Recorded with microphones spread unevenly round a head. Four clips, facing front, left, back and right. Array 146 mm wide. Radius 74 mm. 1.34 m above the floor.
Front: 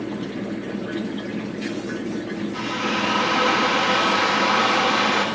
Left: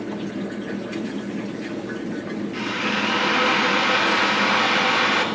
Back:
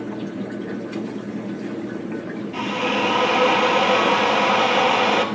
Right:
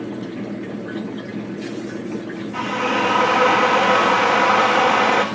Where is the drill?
130° right, 1.4 m.